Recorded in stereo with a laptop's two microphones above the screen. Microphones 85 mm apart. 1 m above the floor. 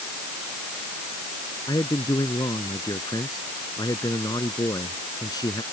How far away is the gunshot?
No gunshot in this recording.